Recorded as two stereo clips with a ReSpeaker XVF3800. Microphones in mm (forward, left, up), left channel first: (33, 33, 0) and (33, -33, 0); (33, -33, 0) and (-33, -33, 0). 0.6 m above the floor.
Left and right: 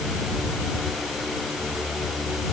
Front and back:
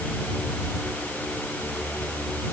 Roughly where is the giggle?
I don't hear a giggle.